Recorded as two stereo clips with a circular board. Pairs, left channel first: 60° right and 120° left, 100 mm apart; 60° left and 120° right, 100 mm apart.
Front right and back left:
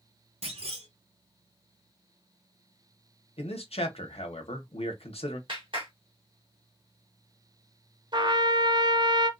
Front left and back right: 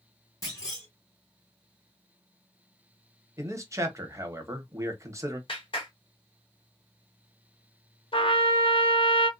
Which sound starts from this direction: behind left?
A clunk, at 0.4 s.